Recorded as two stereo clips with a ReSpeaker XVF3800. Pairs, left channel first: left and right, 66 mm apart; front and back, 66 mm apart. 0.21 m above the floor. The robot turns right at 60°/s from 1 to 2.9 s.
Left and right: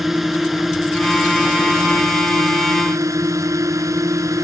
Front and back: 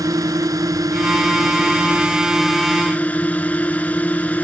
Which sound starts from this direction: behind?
A drone, at 0.0 s.